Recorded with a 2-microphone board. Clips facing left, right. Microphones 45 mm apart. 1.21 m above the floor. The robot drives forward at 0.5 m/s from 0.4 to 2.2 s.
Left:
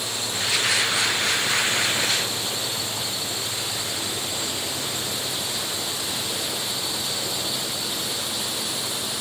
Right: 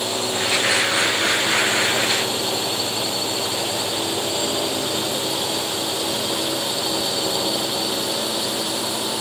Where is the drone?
65° right (ahead or behind).